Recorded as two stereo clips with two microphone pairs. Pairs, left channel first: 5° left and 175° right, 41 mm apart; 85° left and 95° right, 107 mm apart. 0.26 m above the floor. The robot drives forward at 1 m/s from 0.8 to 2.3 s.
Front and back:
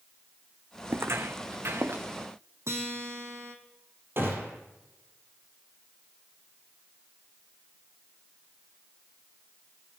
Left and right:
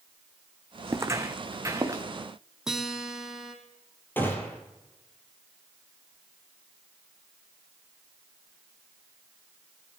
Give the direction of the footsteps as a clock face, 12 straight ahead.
5 o'clock.